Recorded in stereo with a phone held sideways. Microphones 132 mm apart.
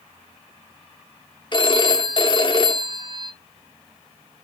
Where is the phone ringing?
35° left (ahead or behind), 1.0 m.